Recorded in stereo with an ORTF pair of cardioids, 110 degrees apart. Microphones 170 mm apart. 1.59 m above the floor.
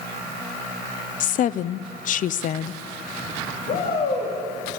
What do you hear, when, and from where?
1.2 s a woman speaking: 50° left, 0.7 m
3.7 s a shout: 60° left, 4 m